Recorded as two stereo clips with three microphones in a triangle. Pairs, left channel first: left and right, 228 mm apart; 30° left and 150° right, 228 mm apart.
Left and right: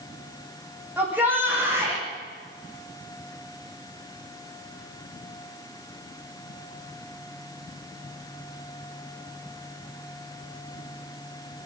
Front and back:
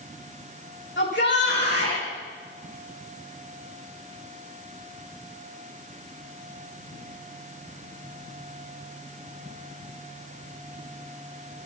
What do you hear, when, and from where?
1.0 s a shout: 5° right, 10 m; by 2.0 s 10° right, 9.5 m